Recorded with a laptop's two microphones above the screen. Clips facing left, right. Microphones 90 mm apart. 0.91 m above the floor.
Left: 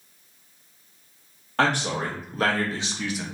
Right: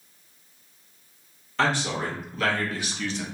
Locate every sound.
1.6 s a man speaking: 55° left (ahead or behind), 1.4 m; by 3.2 s 5° left (ahead or behind), 0.7 m